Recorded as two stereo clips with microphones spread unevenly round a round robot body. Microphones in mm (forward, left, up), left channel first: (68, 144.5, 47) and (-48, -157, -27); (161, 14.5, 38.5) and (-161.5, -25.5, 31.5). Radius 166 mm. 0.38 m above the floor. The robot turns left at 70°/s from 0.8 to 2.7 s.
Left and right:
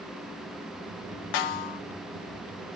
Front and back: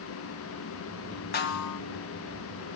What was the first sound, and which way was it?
A snare drum, 70° left.